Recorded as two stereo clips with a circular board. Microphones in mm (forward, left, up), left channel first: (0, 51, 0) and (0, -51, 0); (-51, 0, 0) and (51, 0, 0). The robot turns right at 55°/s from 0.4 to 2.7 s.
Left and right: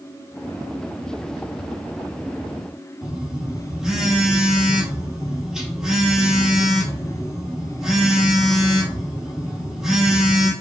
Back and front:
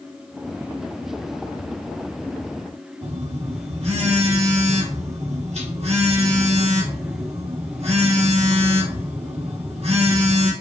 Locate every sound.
3.0 s a phone buzzing: 5° right, 1.4 m